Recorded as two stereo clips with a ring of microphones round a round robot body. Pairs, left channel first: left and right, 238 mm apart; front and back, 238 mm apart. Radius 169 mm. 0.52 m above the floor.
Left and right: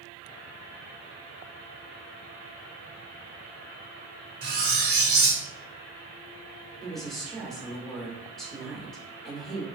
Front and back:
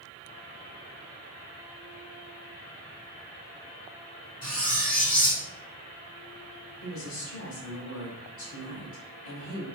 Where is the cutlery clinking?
65° right, 1.3 m.